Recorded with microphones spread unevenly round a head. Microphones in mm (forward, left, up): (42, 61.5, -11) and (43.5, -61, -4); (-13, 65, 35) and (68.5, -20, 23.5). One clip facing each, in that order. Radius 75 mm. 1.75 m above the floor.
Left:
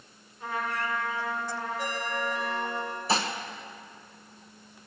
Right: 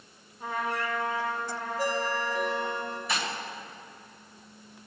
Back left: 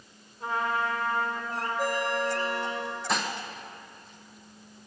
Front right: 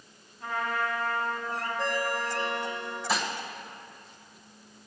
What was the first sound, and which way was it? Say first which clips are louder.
A trumpet: right 1 dB, back left 2 dB; 160° right.